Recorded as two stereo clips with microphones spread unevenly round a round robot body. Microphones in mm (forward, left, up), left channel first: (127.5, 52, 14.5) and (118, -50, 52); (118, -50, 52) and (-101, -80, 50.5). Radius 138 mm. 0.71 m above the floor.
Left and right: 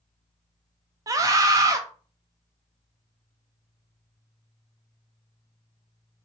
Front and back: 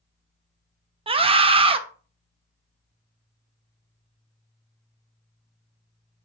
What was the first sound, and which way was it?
A scream, 160° right.